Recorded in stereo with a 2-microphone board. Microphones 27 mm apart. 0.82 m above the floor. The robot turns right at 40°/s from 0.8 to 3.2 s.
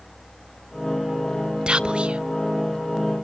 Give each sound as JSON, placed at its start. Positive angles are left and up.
{"t": 1.7, "sound": "whispering", "side_deg": -40, "distance_m": 0.6}